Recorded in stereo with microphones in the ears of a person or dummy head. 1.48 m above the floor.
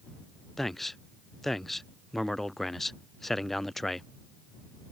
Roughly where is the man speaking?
Centre.